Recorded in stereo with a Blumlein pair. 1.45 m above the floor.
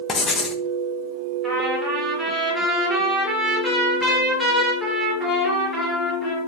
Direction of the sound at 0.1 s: 20° left.